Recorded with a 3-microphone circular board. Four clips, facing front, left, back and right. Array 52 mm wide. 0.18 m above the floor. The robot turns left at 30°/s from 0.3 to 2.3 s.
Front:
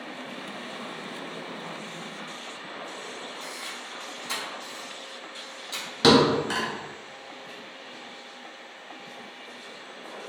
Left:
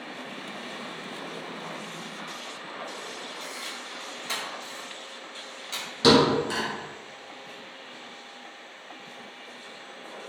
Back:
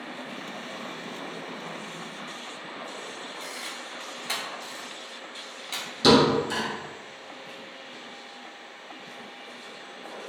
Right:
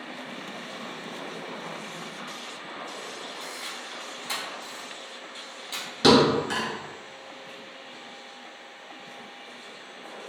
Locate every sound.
3.4 s a camera shutter: 160° left, 1.1 m
6.0 s a thud: 20° right, 1.4 m